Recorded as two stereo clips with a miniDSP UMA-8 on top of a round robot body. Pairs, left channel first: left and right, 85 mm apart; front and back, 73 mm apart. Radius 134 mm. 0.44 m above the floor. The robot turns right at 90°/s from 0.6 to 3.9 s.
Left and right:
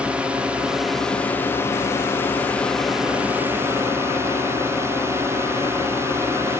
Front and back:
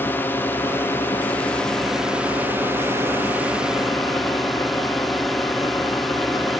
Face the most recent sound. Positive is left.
turn(degrees=-90)